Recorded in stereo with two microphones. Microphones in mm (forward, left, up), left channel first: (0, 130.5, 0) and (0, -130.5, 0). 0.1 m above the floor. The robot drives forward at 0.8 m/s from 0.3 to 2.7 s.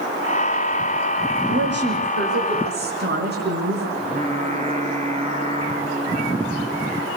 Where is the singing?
25° right (ahead or behind), 4 m.